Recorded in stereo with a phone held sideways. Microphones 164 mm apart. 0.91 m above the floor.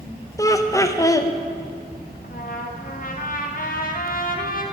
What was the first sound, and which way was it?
Laughter, 20° left (ahead or behind).